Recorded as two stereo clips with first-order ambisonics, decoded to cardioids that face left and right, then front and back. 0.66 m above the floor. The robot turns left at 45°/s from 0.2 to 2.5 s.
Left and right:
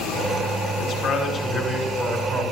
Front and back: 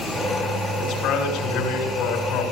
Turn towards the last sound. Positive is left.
turn(degrees=-10)